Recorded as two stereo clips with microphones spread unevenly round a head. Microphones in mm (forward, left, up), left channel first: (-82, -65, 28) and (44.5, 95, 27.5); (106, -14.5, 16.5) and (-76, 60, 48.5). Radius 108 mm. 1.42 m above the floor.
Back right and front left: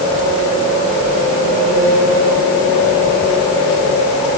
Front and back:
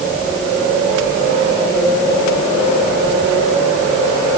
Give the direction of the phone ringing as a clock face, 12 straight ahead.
I don't hear a phone ringing.